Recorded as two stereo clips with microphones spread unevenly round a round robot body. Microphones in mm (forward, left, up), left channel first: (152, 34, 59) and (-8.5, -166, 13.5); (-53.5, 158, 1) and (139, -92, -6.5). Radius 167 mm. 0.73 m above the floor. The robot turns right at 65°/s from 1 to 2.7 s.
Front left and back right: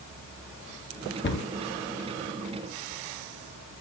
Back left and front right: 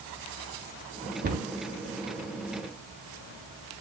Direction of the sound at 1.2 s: 5° left.